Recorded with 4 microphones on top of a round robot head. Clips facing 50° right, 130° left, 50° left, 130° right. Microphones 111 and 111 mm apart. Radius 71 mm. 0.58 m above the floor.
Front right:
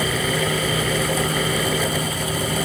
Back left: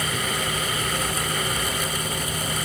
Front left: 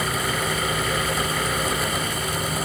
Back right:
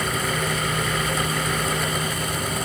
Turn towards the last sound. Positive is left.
No sound to turn to.